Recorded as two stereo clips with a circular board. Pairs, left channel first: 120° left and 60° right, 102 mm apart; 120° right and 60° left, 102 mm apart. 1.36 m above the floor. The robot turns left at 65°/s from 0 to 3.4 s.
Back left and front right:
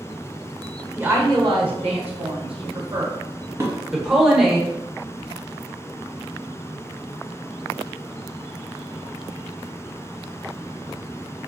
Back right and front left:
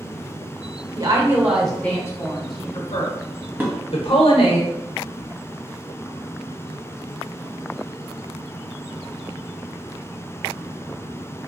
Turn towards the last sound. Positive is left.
turn(degrees=-5)